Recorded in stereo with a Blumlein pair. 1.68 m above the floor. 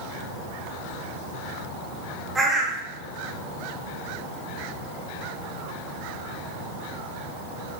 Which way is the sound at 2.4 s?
10° right.